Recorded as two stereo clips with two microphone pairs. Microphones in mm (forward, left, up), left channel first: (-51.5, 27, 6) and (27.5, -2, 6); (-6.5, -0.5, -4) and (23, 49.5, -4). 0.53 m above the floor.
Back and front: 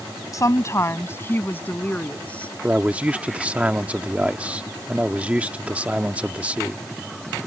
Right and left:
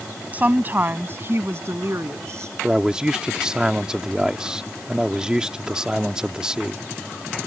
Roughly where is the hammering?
I don't hear hammering.